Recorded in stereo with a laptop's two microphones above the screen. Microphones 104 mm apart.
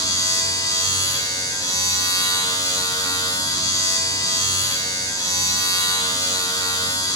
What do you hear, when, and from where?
0.0 s a machine running: 35° left (ahead or behind), 1.6 m